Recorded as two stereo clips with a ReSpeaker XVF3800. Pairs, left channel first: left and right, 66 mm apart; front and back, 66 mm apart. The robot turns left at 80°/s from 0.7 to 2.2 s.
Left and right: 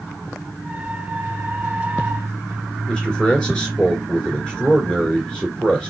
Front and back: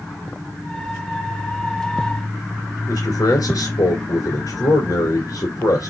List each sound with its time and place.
2.9 s a man speaking: 15° left, 2 m